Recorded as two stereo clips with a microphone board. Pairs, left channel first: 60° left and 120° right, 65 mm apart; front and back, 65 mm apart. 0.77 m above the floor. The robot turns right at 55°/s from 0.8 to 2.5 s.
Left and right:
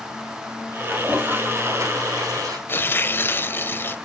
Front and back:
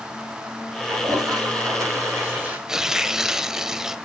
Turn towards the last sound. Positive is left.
turn(degrees=100)